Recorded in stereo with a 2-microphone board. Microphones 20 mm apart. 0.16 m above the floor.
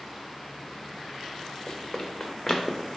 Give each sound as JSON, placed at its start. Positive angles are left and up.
{"t": 1.7, "sound": "running footsteps", "side_deg": 35, "distance_m": 0.9}